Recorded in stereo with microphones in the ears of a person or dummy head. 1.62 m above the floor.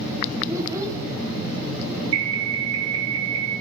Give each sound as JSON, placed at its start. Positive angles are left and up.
{"t": 0.5, "sound": "a child speaking", "side_deg": -20, "distance_m": 2.5}
{"t": 2.1, "sound": "an alarm", "side_deg": -80, "distance_m": 8.5}